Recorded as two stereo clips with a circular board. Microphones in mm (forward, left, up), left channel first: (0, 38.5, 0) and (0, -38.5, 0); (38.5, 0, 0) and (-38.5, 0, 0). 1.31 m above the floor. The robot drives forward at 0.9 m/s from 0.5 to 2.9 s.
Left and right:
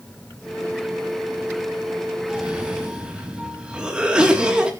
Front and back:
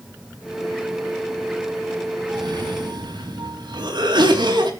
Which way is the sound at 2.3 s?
165° right.